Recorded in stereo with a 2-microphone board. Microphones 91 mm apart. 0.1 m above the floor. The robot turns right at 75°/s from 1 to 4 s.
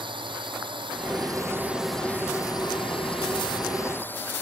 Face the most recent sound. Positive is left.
turn(degrees=155)